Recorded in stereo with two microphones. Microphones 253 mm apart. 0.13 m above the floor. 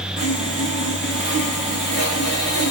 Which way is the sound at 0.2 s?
50° left (ahead or behind).